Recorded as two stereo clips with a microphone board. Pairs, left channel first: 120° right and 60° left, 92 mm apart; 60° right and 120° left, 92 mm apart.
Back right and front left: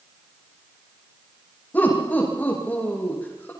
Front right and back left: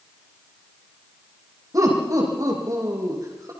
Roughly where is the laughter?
Behind.